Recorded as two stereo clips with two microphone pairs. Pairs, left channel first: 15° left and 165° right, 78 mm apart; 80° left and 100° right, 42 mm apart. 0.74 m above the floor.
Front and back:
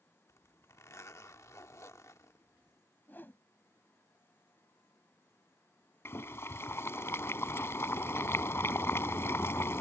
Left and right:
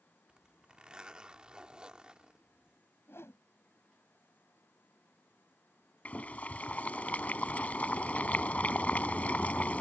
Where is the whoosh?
75° left.